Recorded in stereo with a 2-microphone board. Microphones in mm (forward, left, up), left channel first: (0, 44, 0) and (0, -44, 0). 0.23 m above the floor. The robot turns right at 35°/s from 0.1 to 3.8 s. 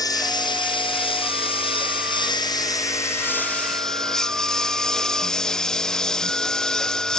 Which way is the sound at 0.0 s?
45° left (ahead or behind).